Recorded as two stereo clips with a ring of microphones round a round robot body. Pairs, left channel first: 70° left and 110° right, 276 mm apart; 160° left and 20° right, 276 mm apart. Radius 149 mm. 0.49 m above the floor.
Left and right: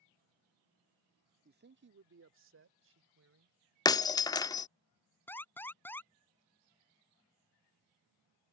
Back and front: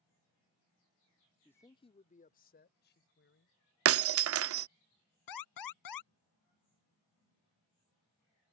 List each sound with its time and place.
1.4 s a man speaking: 120° right; by 3.5 s 155° right
3.9 s breaking glass: 5° right
5.3 s an alarm: 150° left